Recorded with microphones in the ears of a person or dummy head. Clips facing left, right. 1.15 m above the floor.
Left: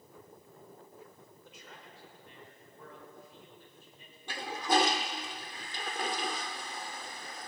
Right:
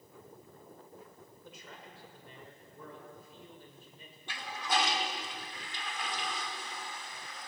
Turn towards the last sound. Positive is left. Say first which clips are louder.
# left 5 dB
turn(degrees=30)  # may be behind; listen again after turning